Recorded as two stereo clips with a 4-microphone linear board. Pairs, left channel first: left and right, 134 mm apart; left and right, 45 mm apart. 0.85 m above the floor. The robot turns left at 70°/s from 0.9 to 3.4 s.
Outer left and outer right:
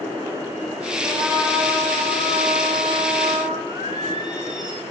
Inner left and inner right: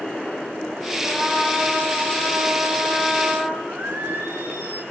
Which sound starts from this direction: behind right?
A trumpet, at 1.0 s.